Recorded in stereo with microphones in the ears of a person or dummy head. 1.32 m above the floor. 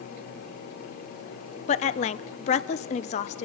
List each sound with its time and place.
1.7 s a woman speaking: 40° left (ahead or behind), 0.7 m